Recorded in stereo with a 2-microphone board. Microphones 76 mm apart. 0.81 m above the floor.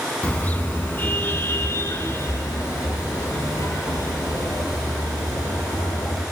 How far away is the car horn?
About 3.5 m.